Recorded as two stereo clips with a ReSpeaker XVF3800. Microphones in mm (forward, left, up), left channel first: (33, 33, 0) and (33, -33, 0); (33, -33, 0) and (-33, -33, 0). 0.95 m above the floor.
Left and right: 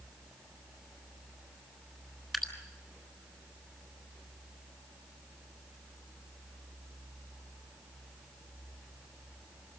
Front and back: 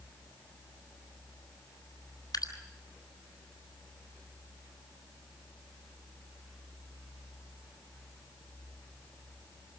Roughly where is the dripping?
Ahead.